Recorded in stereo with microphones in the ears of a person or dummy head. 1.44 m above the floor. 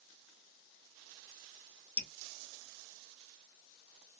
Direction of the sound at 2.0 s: 10° left (ahead or behind).